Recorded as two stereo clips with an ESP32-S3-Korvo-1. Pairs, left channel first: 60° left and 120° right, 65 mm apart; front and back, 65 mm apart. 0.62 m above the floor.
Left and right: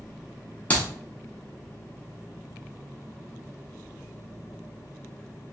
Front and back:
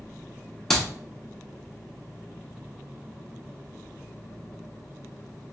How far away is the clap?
About 0.6 m.